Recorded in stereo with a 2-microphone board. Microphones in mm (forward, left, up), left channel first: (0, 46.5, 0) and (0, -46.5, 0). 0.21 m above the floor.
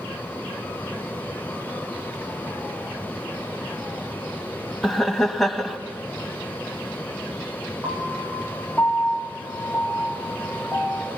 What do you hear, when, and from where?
4.8 s laughter: centre (ahead or behind), 1.1 m
7.8 s a piano: centre (ahead or behind), 3 m